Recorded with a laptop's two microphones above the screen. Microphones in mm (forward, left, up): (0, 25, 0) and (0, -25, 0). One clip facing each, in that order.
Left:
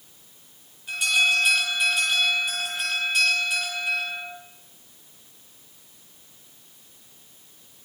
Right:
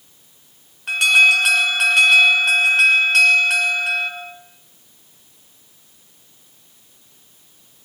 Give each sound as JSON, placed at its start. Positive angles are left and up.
{"t": 0.9, "sound": "an alarm", "side_deg": -70, "distance_m": 5.5}